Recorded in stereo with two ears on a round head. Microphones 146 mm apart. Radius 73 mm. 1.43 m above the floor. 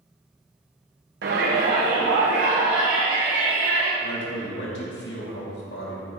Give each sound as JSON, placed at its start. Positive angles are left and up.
{"t": 1.2, "sound": "a shout", "side_deg": -65, "distance_m": 1.0}
{"t": 4.0, "sound": "a man speaking", "side_deg": 75, "distance_m": 2.5}